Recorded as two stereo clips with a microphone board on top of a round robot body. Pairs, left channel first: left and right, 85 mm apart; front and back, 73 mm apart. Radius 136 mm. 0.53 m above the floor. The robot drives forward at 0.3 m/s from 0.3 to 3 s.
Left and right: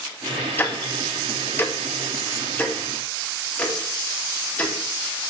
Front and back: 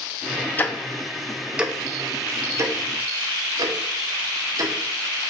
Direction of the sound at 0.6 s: 40° left.